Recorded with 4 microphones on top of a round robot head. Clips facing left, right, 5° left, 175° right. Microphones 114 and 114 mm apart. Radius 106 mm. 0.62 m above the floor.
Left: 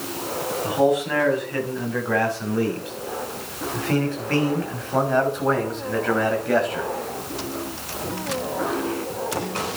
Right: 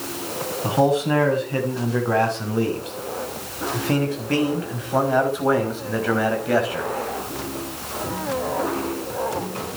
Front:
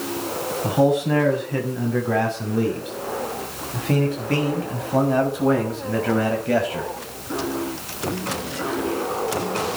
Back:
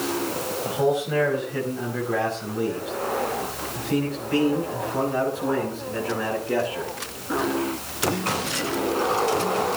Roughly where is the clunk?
No clunk in this recording.